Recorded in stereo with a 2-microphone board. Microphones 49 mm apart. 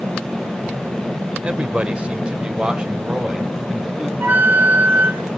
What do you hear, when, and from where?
1.4 s a man speaking: 25° right (ahead or behind), 1.0 m; by 4.1 s 10° right (ahead or behind), 2 m
4.2 s a flute: 45° right (ahead or behind), 3.5 m